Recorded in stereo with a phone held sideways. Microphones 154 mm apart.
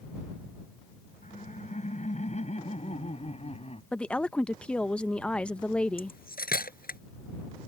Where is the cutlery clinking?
80° left.